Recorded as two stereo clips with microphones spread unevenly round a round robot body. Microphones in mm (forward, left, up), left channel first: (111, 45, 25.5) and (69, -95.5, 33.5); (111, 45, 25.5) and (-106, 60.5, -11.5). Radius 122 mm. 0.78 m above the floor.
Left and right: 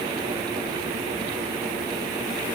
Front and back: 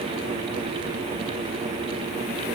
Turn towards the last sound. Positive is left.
No sound to turn to.